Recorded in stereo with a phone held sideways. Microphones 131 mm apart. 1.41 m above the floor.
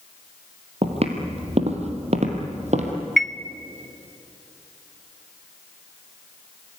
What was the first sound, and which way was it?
Footsteps, 50° right (ahead or behind).